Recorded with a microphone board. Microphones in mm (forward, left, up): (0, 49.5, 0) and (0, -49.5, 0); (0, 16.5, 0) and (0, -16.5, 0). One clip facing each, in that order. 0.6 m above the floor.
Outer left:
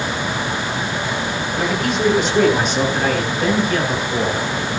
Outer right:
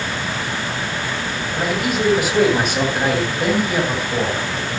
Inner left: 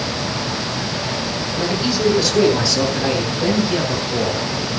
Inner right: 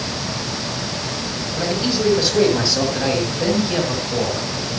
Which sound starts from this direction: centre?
A man speaking, at 1.6 s.